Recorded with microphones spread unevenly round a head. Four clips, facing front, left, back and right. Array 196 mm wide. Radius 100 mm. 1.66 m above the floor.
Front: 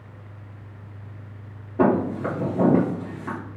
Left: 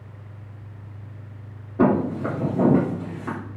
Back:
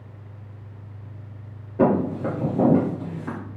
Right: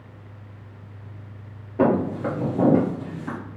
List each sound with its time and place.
1.8 s footsteps: 40° right, 1.7 m; by 3.4 s 90° left, 1.8 m